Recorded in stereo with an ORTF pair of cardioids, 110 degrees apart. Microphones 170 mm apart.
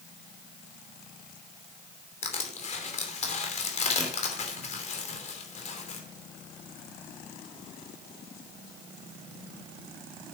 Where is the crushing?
45° left, 3 m.